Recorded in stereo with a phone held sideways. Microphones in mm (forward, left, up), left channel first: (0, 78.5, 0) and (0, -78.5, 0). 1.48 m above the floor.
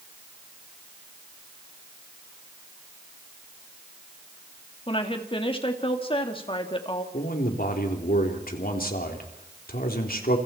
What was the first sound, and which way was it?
A woman speaking, 35° left (ahead or behind).